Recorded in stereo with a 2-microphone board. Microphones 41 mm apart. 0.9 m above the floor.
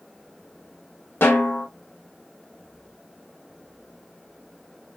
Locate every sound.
1.2 s a snare drum: 60° left (ahead or behind), 1.1 m